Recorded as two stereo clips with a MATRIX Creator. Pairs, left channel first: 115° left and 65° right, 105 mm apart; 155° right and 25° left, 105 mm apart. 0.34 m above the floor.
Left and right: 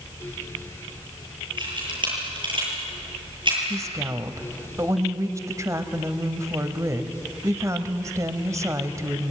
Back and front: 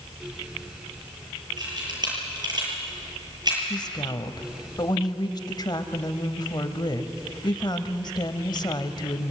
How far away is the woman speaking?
About 1.4 m.